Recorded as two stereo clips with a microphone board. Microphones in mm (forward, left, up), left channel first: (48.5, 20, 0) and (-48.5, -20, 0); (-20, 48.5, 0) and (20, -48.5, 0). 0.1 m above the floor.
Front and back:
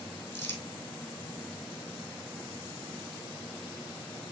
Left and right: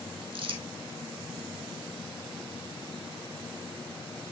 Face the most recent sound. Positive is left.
turn(degrees=-40)